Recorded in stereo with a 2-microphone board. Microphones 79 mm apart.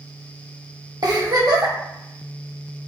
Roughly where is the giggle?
Right.